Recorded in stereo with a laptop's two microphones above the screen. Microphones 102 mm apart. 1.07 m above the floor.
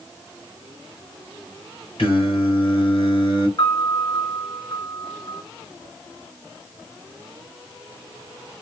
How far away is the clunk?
No clunk in this recording.